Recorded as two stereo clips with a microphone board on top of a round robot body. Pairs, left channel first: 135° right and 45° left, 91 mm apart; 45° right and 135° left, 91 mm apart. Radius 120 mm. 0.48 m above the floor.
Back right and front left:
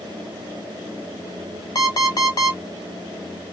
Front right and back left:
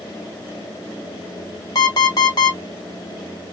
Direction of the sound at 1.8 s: 90° right.